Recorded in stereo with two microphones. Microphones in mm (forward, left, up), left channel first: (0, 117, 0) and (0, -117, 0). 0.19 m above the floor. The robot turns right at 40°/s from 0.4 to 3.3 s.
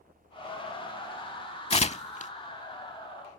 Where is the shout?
I don't hear a shout.